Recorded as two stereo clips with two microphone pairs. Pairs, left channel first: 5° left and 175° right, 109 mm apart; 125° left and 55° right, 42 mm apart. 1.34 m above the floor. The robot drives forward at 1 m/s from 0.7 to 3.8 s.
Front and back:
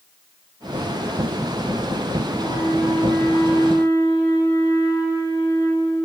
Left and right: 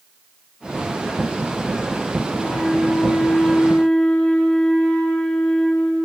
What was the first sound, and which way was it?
A flute, 50° left.